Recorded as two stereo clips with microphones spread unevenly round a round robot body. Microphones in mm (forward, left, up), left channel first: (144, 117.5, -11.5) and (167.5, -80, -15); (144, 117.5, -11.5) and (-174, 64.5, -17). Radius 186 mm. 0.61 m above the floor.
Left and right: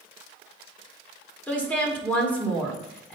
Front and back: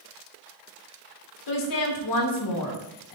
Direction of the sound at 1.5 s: 15° left.